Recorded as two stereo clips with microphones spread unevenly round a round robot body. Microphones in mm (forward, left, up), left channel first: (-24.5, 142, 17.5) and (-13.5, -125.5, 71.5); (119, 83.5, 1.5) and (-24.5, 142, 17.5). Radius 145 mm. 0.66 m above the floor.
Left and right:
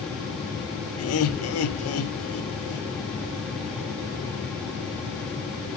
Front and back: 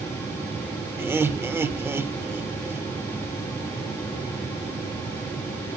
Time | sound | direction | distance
1.0 | laughter | 80° left | 2.5 m